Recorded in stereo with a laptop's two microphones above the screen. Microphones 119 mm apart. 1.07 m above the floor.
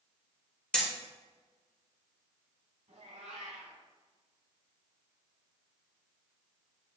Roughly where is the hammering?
Centre.